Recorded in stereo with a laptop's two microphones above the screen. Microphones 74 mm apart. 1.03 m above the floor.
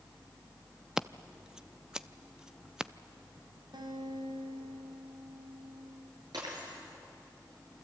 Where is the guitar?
75° right (ahead or behind), 3.5 m.